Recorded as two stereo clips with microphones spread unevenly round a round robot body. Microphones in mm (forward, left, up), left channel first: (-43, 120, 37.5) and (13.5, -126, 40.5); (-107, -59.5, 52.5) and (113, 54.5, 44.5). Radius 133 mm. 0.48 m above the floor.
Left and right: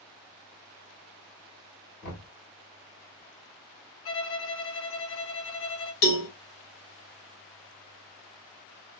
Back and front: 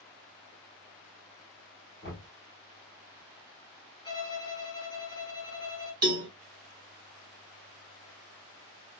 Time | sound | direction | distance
2.0 | knocking | 155° left | 3 m
4.0 | a violin | 135° left | 1.1 m
6.0 | a cowbell | 100° left | 1.4 m